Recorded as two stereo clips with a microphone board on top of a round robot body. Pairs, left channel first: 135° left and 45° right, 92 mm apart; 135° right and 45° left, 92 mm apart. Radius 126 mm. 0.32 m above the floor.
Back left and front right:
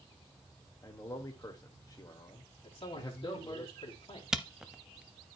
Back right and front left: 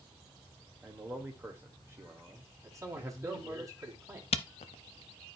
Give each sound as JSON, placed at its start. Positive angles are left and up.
{"t": 0.8, "sound": "a man speaking", "azimuth_deg": 100, "distance_m": 1.5}
{"t": 2.6, "sound": "a man speaking", "azimuth_deg": 105, "distance_m": 3.0}
{"t": 4.3, "sound": "a camera shutter", "azimuth_deg": -130, "distance_m": 0.6}